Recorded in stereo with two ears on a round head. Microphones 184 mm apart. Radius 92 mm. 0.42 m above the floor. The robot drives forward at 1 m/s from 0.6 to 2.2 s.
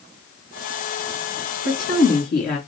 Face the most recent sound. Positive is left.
turn(degrees=45)  # may be behind; listen again after turning